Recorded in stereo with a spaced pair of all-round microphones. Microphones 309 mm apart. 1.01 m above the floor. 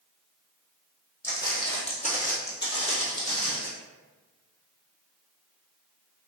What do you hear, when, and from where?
1.2 s footsteps: 10° left (ahead or behind), 1.8 m; by 3.7 s 50° left (ahead or behind), 1.5 m